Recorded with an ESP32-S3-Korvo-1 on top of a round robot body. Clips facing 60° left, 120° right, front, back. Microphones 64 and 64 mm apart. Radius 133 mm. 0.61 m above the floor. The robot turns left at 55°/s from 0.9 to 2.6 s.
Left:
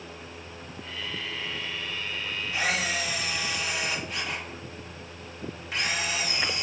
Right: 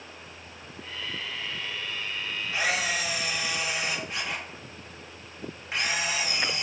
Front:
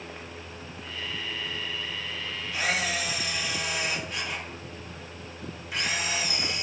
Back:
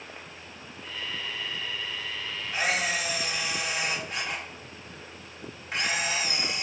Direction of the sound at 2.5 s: 170° right.